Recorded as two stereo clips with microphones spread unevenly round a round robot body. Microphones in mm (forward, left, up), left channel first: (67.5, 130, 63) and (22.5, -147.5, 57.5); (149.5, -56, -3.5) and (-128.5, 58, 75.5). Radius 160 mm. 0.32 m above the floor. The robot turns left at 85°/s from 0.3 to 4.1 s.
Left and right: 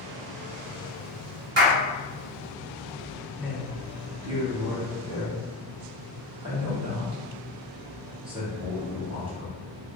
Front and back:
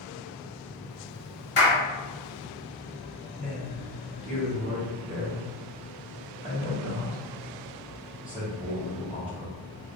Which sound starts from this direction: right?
A clap, at 1.6 s.